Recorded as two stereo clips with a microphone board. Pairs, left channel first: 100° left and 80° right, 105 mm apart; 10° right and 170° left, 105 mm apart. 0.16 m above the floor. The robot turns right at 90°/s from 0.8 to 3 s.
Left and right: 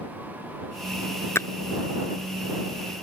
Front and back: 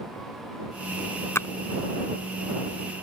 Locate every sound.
1.4 s a splash: 45° left; by 1.5 s 55° left